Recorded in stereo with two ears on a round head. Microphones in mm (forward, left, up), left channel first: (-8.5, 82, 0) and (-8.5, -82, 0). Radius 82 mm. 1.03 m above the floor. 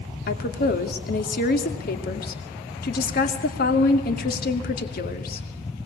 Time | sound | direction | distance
0.3 | a woman speaking | 55° left (ahead or behind) | 2.5 m